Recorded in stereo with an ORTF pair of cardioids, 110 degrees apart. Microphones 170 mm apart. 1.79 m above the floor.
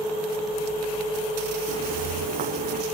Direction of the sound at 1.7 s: 60° right.